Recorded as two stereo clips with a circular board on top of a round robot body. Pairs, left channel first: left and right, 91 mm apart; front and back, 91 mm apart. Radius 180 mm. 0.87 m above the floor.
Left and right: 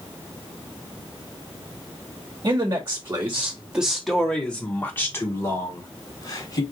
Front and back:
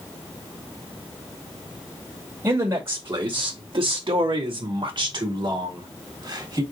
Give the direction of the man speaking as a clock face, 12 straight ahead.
4 o'clock.